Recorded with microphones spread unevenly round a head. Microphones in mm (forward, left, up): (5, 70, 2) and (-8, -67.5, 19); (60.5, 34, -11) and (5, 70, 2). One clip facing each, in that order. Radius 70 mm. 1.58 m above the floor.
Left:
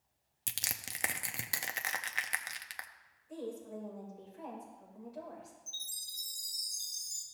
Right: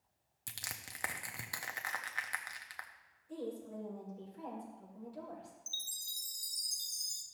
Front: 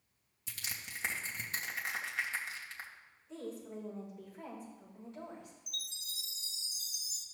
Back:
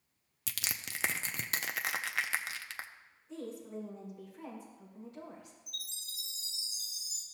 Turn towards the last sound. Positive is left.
turn(degrees=-120)